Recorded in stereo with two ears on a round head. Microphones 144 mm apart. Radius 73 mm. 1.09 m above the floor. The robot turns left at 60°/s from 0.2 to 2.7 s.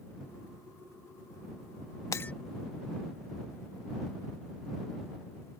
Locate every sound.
2.1 s breaking glass: 20° left (ahead or behind); by 2.3 s 5° left (ahead or behind)